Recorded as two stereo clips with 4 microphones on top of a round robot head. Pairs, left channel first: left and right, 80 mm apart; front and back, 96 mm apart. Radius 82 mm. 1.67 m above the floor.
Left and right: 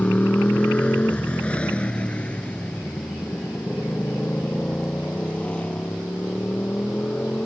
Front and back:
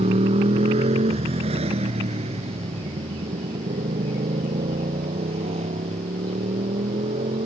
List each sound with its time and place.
0.0 s a motorcycle: 165° left